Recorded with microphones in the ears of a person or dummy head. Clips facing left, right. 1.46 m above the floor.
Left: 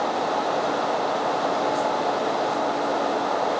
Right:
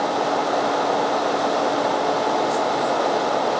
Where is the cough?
I don't hear a cough.